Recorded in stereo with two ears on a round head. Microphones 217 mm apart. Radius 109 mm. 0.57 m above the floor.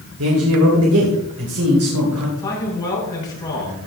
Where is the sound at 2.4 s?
20° left (ahead or behind), 6 m.